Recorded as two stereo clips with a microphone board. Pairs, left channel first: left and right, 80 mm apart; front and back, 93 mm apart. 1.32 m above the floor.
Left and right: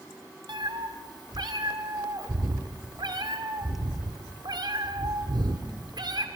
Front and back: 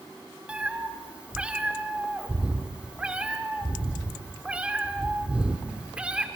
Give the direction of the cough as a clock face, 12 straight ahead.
I don't hear a cough.